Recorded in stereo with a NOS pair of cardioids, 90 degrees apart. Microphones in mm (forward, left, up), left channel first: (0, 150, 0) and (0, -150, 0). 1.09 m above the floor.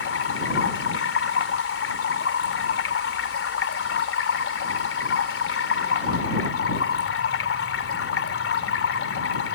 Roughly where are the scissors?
I don't hear scissors.